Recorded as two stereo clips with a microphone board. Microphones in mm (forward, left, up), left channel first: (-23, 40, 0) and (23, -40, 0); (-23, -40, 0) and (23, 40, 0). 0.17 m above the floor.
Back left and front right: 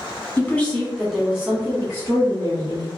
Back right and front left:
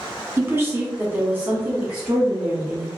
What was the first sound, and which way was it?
A woman speaking, 80° left.